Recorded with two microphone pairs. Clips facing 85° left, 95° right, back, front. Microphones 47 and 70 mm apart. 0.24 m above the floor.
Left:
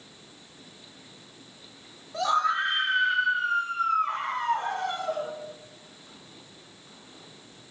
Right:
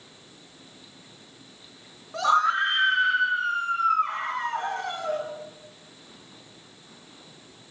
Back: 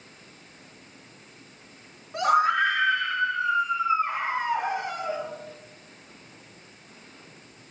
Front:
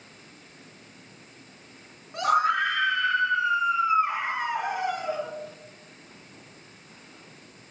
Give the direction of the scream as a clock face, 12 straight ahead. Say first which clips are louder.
Right 3 dB, back 1 dB; 3 o'clock.